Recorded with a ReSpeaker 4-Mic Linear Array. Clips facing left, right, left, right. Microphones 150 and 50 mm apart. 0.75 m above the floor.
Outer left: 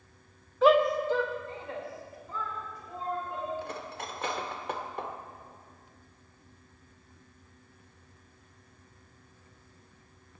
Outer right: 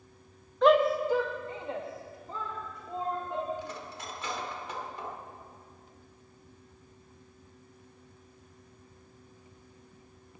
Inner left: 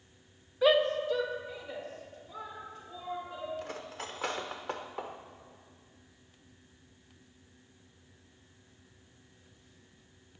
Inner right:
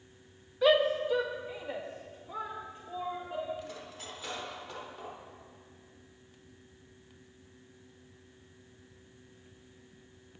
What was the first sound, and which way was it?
A shout, 5° left (ahead or behind).